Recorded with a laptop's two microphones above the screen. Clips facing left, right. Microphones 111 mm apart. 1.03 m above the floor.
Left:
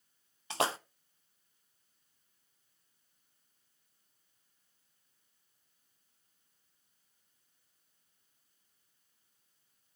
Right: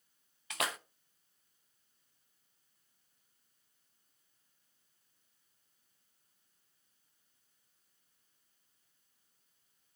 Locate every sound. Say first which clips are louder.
0.5 s a splash: left 6 dB; 30° left (ahead or behind), 0.5 m